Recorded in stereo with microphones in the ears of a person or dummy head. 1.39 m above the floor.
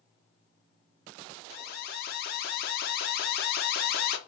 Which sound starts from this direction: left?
An alarm, at 1.5 s.